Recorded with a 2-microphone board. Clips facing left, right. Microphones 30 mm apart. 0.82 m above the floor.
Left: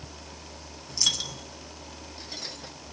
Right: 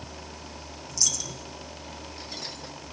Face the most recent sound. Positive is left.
turn(degrees=50)  # may be behind; listen again after turning